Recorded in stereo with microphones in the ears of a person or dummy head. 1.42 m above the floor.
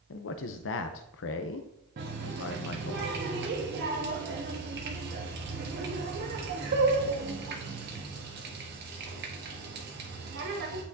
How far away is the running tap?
About 1.1 m.